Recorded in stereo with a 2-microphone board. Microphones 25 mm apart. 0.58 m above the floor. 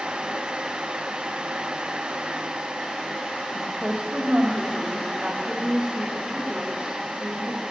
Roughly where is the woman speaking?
Right.